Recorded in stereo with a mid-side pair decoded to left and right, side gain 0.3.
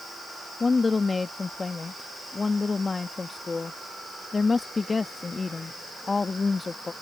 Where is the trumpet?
No trumpet in this recording.